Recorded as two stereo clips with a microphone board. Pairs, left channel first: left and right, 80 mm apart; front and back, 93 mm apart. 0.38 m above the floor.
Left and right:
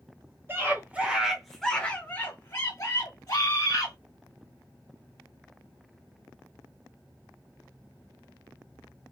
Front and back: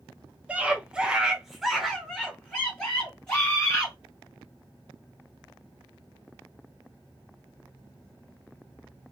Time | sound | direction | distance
0.5 | a scream | 115° right | 1.1 m